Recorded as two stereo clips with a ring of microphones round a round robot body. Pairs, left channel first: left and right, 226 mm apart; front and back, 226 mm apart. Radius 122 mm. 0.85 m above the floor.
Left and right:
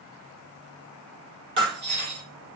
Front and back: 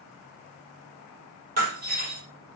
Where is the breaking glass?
130° right, 7 m.